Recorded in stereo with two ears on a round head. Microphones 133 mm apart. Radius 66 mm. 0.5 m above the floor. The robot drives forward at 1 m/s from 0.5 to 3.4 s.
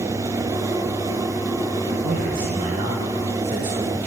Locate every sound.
2.0 s a man speaking: 60° right (ahead or behind), 1.9 m; by 4.1 s 50° right (ahead or behind), 2 m